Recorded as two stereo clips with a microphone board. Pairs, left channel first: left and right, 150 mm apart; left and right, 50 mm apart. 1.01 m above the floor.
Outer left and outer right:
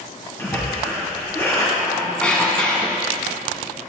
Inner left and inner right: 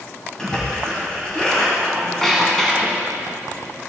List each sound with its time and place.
0.4 s a splash: 15° left (ahead or behind), 3 m
1.8 s a squeak: 10° left (ahead or behind), 1.7 m